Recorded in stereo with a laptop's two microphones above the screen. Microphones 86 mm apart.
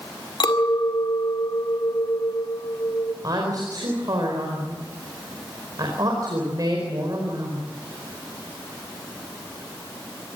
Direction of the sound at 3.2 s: 45° right (ahead or behind).